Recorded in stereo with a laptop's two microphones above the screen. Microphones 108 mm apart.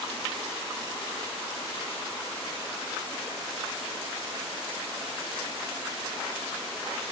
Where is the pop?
I don't hear a pop.